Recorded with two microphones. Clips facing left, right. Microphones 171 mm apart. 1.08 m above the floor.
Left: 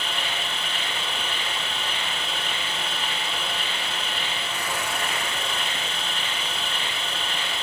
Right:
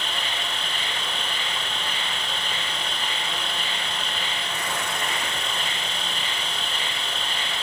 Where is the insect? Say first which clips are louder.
Left 1 dB; 40° right (ahead or behind), 2 m.